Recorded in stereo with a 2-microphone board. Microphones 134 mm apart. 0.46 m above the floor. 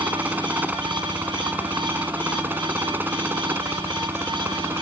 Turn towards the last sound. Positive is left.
turn(degrees=-15)  # may be behind; listen again after turning